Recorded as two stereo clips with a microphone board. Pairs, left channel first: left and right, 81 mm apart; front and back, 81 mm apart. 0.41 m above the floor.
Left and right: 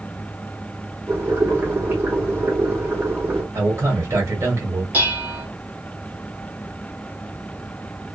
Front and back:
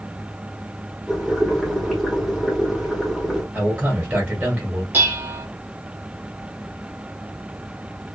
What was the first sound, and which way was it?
Boiling, 95° right.